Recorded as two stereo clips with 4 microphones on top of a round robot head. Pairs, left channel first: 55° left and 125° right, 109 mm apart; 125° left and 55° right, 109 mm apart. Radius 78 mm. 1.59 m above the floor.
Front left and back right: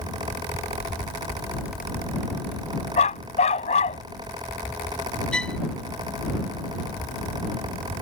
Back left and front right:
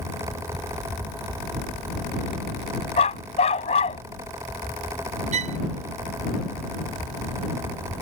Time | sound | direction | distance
3.0 | a dog barking | 85° left | ?
5.3 | a violin | 30° right | ?